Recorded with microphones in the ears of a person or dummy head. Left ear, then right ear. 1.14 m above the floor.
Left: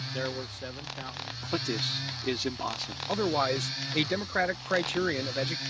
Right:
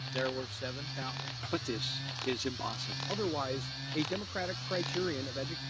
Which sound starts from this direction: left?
A man speaking, at 3.1 s.